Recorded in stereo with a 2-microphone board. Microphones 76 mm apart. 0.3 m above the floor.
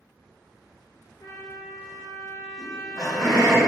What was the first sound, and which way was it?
A trumpet, 55° left (ahead or behind).